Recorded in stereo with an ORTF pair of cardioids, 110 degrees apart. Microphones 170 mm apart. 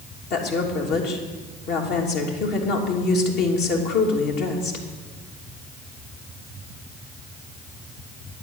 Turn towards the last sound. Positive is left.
turn(degrees=70)